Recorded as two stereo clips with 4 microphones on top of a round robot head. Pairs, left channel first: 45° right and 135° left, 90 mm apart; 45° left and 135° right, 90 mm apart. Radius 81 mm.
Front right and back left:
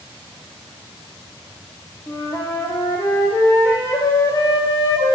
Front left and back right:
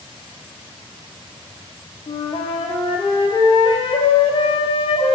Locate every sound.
2.1 s a flute: 15° left, 0.6 m